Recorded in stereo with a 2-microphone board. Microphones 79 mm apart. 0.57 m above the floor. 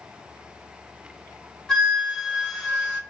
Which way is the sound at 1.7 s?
5° left (ahead or behind).